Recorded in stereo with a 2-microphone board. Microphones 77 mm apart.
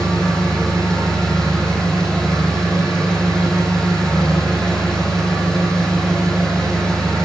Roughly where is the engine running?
Centre.